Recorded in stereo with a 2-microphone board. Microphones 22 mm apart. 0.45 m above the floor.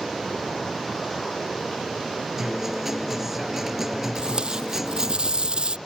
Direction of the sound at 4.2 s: 50° right (ahead or behind).